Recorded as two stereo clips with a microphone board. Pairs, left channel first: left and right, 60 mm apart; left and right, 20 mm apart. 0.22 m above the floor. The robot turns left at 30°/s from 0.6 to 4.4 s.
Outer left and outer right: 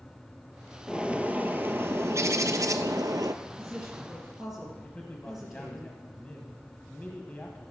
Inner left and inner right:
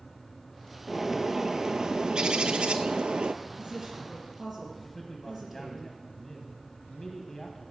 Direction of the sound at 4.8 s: 25° left (ahead or behind).